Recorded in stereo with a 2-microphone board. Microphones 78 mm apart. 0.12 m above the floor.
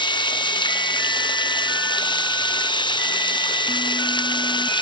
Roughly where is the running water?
Left.